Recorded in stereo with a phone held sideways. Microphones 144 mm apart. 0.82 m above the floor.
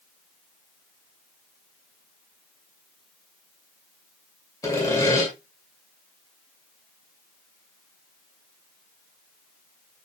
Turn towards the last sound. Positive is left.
turn(degrees=25)  # may be behind; listen again after turning